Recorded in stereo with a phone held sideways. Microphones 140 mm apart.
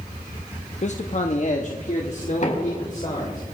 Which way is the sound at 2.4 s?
55° left (ahead or behind).